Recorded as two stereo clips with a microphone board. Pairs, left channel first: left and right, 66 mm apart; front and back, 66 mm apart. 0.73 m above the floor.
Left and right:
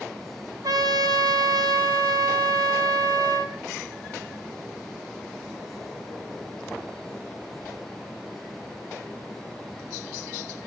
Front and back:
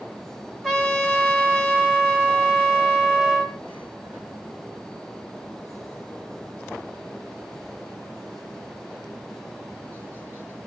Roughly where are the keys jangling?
No keys jangling in this recording.